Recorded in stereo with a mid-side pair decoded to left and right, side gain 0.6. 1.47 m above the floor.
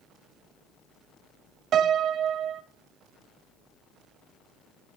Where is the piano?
50° right, 0.6 m.